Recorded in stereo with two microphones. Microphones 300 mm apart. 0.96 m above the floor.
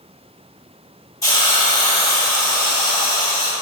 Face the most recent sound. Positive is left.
turn(degrees=10)  # may be behind; listen again after turning